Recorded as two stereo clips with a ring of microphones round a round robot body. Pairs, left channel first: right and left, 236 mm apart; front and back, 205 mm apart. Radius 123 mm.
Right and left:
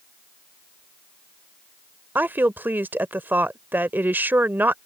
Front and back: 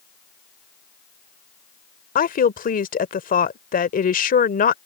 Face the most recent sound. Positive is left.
turn(degrees=10)